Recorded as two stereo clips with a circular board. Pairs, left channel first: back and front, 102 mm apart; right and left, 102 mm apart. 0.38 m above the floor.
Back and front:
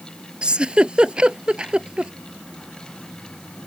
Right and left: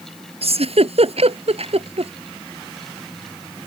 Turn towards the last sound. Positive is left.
turn(degrees=80)